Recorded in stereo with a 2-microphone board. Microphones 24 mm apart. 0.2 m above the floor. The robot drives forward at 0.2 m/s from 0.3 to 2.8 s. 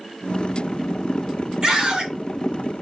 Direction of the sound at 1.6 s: 25° right (ahead or behind).